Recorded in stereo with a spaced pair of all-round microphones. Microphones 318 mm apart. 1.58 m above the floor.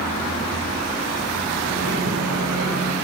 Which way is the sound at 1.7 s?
65° right (ahead or behind).